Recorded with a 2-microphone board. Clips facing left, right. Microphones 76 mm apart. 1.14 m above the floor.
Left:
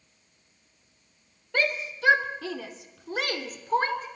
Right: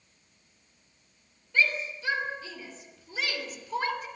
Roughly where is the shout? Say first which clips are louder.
Even; left.